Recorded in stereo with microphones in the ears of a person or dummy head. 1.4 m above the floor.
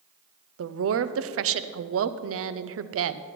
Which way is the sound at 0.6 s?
65° right (ahead or behind).